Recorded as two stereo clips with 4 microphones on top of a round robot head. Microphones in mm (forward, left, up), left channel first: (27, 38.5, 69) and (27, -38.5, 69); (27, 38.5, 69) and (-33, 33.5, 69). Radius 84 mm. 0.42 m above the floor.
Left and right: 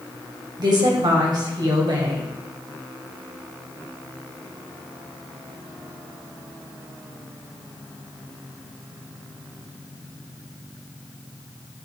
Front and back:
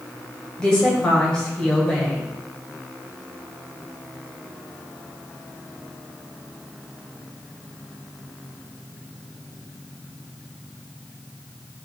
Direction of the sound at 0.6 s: 70° right.